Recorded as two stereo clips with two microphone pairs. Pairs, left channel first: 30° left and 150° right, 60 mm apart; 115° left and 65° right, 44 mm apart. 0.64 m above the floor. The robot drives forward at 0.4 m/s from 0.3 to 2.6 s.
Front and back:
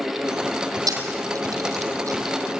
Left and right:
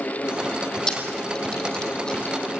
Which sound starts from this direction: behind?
A camera shutter, at 0.9 s.